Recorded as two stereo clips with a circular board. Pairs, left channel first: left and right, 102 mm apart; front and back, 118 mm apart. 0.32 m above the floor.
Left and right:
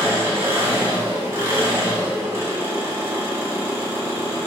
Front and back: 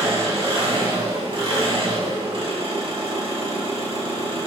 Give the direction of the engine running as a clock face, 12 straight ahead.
5 o'clock.